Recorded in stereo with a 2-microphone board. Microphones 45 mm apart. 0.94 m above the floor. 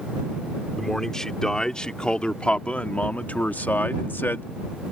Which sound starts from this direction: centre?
A man speaking, at 0.8 s.